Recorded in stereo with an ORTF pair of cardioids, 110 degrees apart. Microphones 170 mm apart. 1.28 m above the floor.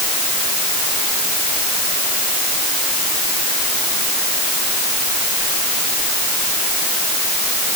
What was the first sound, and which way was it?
Only background noise.